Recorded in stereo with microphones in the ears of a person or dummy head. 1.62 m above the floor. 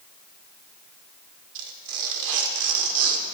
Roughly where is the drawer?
No drawer in this recording.